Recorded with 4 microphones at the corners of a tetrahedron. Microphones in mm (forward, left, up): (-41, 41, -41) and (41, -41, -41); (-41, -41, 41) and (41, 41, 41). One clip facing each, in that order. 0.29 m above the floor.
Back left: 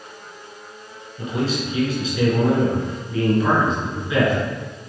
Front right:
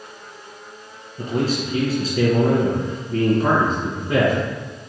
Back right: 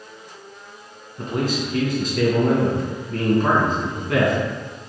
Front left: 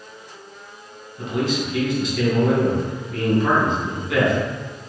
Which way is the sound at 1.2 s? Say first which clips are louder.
Front right 2 dB, front left 1 dB; 90° right.